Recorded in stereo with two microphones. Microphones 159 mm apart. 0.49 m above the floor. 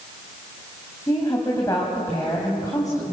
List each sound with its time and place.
1.1 s a woman speaking: 20° left (ahead or behind), 3 m